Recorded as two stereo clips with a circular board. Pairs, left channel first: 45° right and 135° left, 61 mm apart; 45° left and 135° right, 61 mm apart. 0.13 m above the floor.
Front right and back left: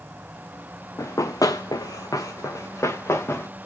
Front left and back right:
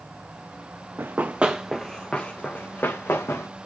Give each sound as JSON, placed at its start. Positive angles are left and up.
{"t": 1.0, "sound": "running footsteps", "azimuth_deg": -80, "distance_m": 0.7}